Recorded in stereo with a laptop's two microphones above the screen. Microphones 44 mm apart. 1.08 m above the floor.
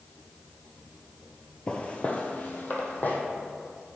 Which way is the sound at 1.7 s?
25° left (ahead or behind).